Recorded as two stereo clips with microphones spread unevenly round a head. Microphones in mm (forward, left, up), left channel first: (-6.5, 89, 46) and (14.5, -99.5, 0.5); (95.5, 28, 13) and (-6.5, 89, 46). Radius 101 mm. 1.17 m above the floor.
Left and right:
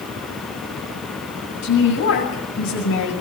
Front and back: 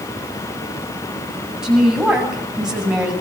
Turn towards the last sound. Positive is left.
turn(degrees=65)